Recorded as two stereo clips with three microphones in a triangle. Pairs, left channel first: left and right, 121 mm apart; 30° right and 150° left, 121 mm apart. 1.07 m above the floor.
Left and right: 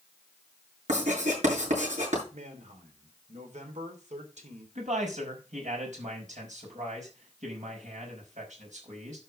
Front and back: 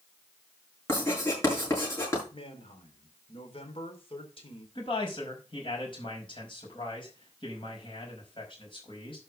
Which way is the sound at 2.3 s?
70° right.